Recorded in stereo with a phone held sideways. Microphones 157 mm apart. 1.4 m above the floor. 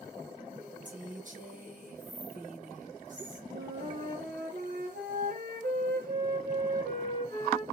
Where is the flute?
75° right (ahead or behind), 0.8 m.